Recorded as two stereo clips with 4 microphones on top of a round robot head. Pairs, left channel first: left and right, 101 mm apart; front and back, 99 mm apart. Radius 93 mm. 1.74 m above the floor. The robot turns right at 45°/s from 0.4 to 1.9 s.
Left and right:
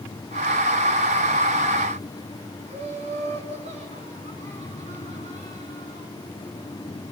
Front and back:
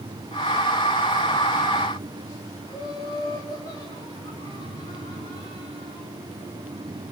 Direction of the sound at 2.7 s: 65° right.